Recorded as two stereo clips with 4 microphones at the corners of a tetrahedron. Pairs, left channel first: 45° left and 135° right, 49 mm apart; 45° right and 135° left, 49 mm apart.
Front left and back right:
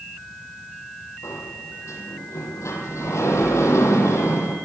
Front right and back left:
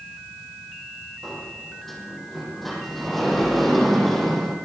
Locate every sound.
1.2 s a sliding door: 40° left, 6 m